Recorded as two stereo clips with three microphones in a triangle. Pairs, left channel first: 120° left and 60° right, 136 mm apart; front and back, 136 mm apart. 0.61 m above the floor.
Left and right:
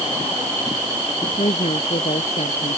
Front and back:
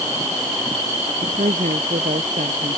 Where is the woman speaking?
160° left; by 2.8 s 155° left.